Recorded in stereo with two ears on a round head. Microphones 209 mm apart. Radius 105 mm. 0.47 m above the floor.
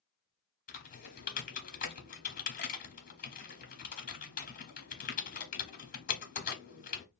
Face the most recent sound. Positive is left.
turn(degrees=35)  # may be behind; listen again after turning